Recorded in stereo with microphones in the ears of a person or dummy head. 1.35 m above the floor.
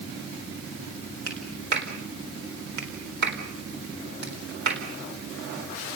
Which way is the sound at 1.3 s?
60° right (ahead or behind).